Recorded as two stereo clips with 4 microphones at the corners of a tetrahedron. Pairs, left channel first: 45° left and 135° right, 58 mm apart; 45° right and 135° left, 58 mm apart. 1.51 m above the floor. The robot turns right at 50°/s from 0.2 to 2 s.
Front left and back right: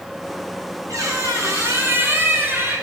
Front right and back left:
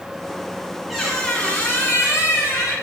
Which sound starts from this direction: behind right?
A squeak, at 0.9 s.